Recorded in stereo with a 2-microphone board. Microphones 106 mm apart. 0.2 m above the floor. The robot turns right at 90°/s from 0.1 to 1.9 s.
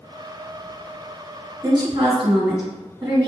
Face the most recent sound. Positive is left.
turn(degrees=-40)  # may be behind; listen again after turning